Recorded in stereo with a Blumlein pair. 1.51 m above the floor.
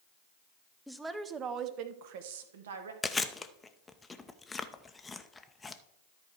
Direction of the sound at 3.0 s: 10° left.